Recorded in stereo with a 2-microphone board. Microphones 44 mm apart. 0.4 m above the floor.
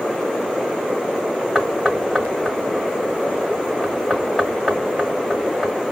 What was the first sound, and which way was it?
Knocking, 5° left (ahead or behind).